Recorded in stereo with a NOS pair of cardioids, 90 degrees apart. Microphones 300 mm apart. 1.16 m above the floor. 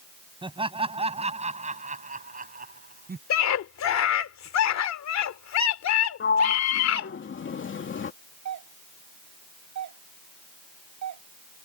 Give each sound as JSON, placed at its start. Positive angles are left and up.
{"t": 0.4, "sound": "laughter", "azimuth_deg": -15}
{"t": 3.3, "sound": "a scream", "azimuth_deg": 65}
{"t": 6.2, "sound": "a sliding door", "azimuth_deg": 40}
{"t": 8.4, "sound": "a doorbell", "azimuth_deg": -70}